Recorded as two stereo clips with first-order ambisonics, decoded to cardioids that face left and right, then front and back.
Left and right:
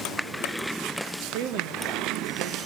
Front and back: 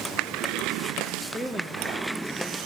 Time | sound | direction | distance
1.3 | a woman speaking | 85° right | 1.2 m